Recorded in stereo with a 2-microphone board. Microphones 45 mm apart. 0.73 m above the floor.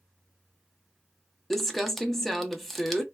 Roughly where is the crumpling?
Centre.